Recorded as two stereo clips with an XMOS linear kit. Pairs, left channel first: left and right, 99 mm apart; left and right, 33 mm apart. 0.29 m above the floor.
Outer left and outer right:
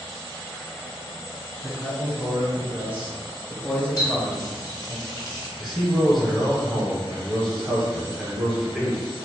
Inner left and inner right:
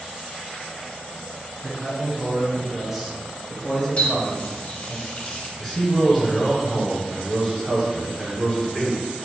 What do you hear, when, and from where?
1.6 s a man speaking: 45° right (ahead or behind), 1.8 m; by 5.0 s 40° left (ahead or behind), 1.8 m
4.0 s a running tap: 45° left (ahead or behind), 0.8 m
5.6 s a man speaking: centre (ahead or behind), 1.1 m